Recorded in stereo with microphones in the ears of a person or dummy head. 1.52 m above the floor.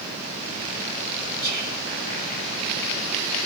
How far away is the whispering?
About 3 m.